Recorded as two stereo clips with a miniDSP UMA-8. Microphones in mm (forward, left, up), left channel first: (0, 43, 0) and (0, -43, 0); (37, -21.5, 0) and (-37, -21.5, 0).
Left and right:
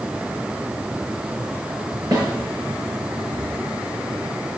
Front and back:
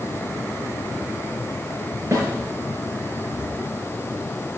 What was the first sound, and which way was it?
A snare drum, 135° right.